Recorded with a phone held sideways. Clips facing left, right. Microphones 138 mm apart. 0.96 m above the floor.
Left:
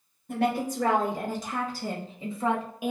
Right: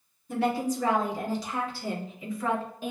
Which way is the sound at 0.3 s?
60° left (ahead or behind).